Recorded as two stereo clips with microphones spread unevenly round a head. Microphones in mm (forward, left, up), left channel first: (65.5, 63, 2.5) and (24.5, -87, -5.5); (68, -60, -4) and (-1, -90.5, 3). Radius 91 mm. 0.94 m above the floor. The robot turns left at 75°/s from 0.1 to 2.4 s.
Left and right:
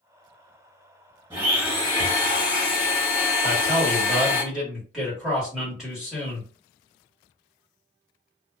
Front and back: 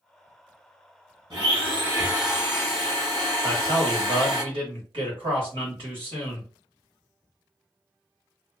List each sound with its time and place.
1.3 s a blender: 170° right, 1.4 m; by 4.4 s 110° left, 1.4 m
3.4 s a man speaking: 165° left, 1.4 m